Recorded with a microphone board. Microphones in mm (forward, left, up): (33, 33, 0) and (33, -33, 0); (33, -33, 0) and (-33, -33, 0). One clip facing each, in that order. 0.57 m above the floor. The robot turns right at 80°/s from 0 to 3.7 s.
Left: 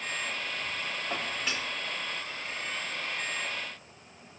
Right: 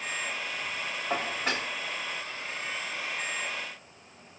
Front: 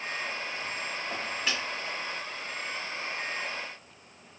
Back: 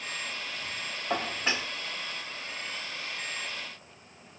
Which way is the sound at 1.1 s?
150° right.